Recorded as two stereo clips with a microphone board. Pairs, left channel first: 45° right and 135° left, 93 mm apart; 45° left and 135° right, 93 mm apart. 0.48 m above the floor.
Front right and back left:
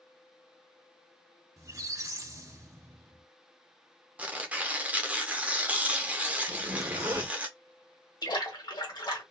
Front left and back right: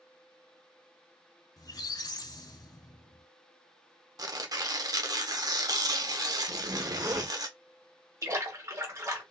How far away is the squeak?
About 0.5 m.